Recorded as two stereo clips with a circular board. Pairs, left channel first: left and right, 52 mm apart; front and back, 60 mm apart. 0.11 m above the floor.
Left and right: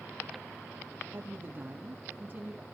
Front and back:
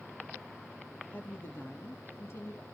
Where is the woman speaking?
50° right, 3.5 m; by 2.6 s 35° right, 4.5 m.